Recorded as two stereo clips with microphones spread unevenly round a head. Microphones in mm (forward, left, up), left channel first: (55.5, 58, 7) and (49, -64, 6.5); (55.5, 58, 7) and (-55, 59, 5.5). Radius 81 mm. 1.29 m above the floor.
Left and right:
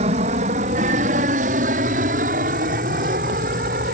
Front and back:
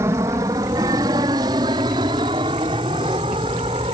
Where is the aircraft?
115° right; by 4.0 s 120° right.